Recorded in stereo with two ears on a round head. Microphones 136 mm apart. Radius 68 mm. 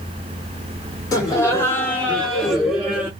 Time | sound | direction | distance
1.1 | laughter | 25° left (ahead or behind) | 1.6 m